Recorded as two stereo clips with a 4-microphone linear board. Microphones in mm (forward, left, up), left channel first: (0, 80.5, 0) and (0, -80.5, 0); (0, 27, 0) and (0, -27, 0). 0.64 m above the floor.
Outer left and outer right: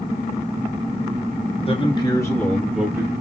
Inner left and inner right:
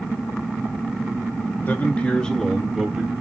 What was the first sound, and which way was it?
A man speaking, 35° left (ahead or behind).